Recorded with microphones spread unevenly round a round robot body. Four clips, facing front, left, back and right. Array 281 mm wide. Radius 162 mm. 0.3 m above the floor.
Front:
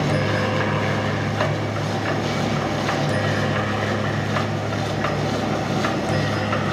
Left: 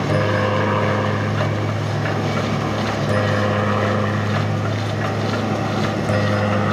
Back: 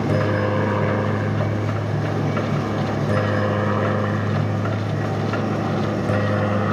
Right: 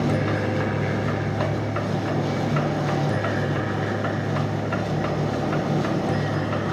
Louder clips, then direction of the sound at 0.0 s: Left 4 dB, back 1 dB; 140° left.